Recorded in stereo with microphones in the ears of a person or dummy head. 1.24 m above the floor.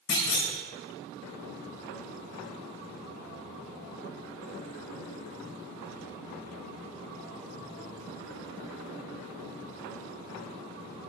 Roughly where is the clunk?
Left.